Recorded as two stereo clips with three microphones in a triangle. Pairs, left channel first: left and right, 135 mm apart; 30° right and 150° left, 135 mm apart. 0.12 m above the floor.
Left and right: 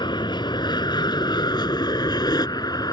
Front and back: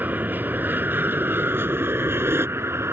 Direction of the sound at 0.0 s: 85° left.